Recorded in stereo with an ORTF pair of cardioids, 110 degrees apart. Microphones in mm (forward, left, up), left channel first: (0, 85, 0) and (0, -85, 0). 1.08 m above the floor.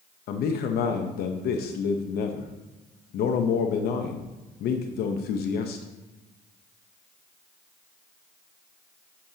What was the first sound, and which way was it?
A man speaking, 65° left.